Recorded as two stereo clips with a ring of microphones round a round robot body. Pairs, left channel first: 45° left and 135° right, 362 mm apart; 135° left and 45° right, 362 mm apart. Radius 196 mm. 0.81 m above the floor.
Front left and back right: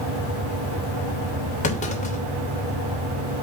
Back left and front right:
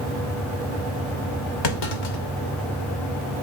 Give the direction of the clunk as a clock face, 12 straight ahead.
8 o'clock.